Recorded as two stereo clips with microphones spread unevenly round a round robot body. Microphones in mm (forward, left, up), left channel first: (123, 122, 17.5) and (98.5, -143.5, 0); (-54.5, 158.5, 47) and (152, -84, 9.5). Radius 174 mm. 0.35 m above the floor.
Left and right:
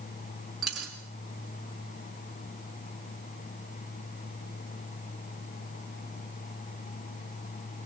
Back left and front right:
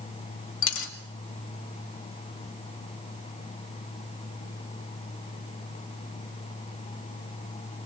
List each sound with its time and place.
0.6 s a dropped coin: 175° left, 1.5 m